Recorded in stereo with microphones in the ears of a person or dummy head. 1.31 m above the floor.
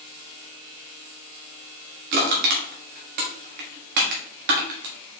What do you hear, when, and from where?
2.1 s crushing: 55° right (ahead or behind), 1.0 m